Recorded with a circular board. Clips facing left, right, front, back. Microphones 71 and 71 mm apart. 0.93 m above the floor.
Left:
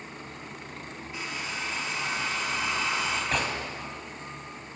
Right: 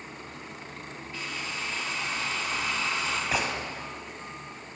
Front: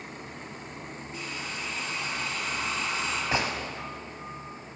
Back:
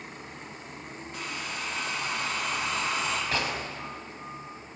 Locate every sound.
1.1 s a hair dryer: 160° left, 1.4 m
3.3 s a gunshot: 15° right, 0.8 m